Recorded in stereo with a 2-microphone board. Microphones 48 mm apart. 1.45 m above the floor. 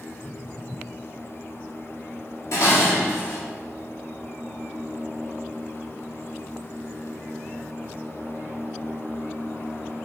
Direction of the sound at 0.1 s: 40° left (ahead or behind).